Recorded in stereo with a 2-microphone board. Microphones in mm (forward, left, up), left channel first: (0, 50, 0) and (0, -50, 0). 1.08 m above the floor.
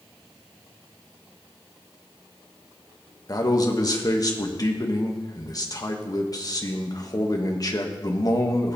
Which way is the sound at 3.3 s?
40° left (ahead or behind).